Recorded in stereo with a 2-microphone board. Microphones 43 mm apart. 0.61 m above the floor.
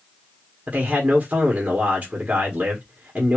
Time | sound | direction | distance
0.7 | a man speaking | 30° right (ahead or behind) | 1.4 m